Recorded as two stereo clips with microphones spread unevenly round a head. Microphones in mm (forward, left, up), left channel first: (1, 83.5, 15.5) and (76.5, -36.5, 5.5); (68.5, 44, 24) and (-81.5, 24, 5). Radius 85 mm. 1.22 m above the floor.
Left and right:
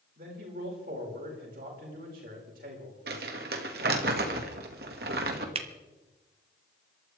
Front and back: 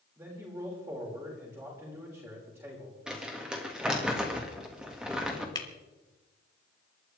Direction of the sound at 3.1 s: 85° right.